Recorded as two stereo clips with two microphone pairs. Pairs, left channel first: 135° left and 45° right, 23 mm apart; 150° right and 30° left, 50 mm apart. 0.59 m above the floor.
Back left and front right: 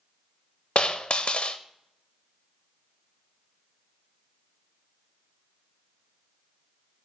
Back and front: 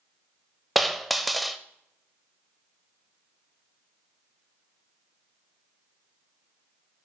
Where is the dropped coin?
115° left, 0.5 m.